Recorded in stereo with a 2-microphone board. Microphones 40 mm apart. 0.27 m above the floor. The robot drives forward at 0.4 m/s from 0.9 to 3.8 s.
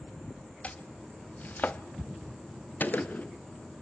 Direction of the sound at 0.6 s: 35° left (ahead or behind).